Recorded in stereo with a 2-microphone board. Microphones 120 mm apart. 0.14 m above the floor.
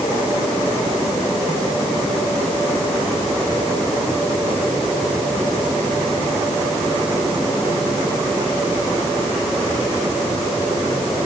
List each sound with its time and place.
Only background noise.